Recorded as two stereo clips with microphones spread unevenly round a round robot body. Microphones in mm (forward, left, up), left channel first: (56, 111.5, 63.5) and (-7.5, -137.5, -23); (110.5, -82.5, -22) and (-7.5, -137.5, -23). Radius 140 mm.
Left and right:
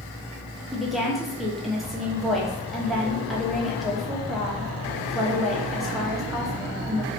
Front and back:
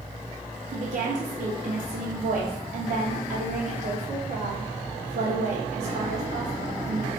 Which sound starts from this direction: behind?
A woman speaking, at 0.7 s.